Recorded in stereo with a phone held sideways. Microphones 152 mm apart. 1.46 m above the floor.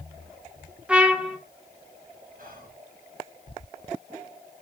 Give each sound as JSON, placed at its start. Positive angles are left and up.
{"t": 0.9, "sound": "a trumpet", "side_deg": -5, "distance_m": 0.7}
{"t": 2.4, "sound": "whispering", "side_deg": -70, "distance_m": 1.9}